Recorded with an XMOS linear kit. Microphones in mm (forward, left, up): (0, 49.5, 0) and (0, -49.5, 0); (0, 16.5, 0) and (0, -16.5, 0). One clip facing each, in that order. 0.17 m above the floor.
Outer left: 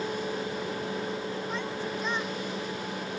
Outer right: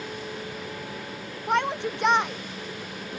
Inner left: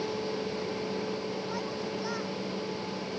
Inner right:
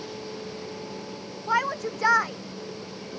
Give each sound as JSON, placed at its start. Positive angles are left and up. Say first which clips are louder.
{"t": 1.5, "sound": "a shout", "louder": "outer right 7 dB, inner right 8 dB", "side_deg": -70}